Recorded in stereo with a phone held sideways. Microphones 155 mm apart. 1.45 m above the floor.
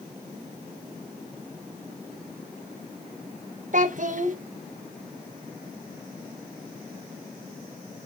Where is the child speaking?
55° right (ahead or behind), 0.8 m.